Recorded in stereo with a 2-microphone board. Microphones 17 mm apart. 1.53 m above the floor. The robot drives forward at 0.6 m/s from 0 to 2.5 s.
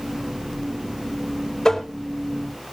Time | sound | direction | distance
1.6 | tapping | 40° left (ahead or behind) | 4 m